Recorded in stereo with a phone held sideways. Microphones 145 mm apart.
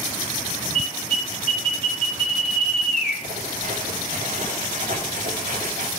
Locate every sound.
0.8 s an alarm: 70° left (ahead or behind), 3 m
3.2 s writing: 60° right (ahead or behind), 2.5 m